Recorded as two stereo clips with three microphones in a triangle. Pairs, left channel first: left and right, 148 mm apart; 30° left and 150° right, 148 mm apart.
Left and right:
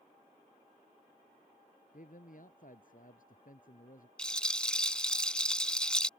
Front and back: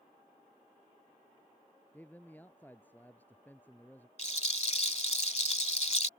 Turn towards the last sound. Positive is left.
turn(degrees=10)